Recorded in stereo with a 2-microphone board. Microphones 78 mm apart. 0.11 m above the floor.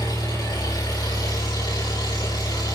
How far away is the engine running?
About 6.5 m.